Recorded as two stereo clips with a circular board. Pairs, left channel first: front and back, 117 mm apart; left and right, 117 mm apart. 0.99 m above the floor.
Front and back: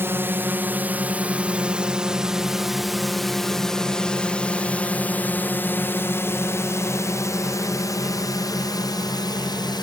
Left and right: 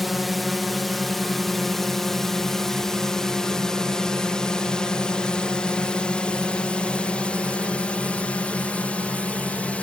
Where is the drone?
Straight behind; by 9.8 s 20° left.